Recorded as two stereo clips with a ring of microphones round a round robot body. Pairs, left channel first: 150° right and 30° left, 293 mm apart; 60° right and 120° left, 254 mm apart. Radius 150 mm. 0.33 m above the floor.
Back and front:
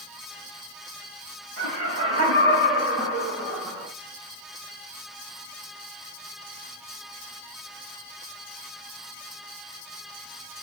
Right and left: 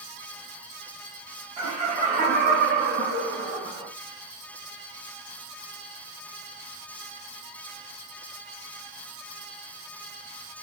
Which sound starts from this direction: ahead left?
Laughter, at 1.6 s.